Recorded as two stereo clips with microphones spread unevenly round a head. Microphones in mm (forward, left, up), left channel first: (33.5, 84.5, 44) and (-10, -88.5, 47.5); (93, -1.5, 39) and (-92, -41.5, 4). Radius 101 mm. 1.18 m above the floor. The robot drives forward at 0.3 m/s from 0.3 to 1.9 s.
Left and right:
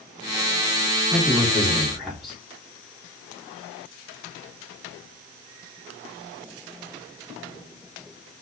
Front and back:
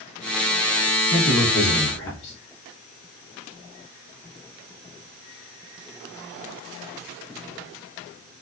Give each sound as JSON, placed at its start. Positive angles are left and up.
{"t": 1.1, "sound": "a man speaking", "azimuth_deg": -10, "distance_m": 3.0}